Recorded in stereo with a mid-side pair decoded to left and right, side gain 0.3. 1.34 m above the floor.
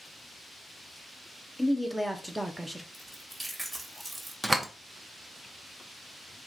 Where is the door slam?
15° right, 0.9 m.